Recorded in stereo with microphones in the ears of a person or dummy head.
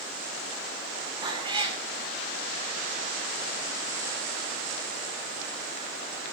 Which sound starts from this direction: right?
A cat meowing, at 1.2 s.